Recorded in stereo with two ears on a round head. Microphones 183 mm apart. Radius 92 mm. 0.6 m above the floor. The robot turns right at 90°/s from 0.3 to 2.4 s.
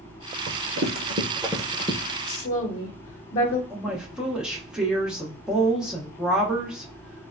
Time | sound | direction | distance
0.5 | running footsteps | 30° right (ahead or behind) | 1.1 m
2.3 | a woman speaking | 40° left (ahead or behind) | 0.8 m
3.7 | a woman speaking | 5° right (ahead or behind) | 0.6 m